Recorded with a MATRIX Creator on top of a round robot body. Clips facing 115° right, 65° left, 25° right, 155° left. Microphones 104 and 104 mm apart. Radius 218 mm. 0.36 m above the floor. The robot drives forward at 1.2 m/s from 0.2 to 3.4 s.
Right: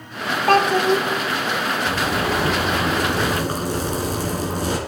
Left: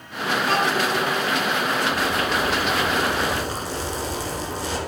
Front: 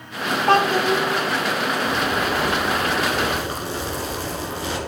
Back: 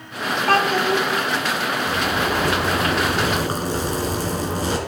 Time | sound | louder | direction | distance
0.5 | a child speaking | right 8 dB, front 1 dB | 85° right | 1.3 m
1.9 | a zipper | right 1 dB, even | 110° right | 1.3 m